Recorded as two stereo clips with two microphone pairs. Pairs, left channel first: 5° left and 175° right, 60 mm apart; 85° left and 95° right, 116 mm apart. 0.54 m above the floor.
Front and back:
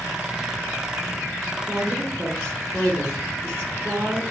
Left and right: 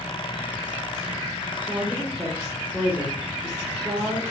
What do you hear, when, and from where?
1.6 s a woman speaking: 170° right, 1.0 m